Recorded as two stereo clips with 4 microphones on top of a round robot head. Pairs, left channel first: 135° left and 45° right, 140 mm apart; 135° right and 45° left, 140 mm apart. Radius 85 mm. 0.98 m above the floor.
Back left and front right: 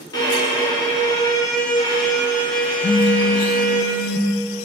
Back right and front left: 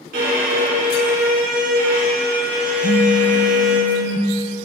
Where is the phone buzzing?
170° right, 0.6 m.